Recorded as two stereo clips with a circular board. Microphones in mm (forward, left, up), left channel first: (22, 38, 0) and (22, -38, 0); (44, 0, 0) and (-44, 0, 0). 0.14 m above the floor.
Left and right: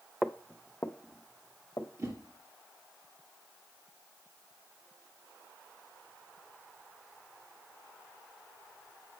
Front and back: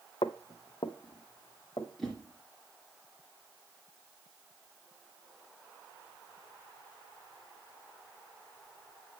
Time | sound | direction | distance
0.2 | footsteps | 5° right | 0.6 m
2.0 | a whoosh | 85° right | 2.5 m